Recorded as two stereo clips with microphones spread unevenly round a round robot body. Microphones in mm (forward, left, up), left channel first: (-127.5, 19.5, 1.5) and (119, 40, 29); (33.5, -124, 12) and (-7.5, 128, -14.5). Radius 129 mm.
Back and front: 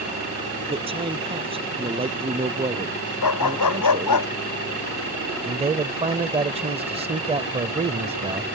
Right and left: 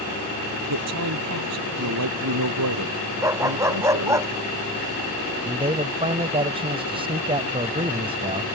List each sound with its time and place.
0.7 s a man speaking: 75° left
3.2 s a dog barking: straight behind
5.4 s a man speaking: 60° left